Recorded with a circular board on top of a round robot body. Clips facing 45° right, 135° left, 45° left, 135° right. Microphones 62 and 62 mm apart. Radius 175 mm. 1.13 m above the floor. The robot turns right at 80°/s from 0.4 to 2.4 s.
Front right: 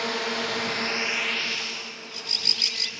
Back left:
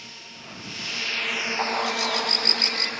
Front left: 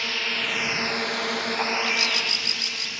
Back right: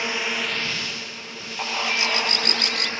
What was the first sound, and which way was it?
A drone, 65° right.